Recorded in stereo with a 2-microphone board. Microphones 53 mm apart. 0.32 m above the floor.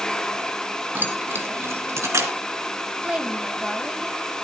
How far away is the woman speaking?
About 1.9 m.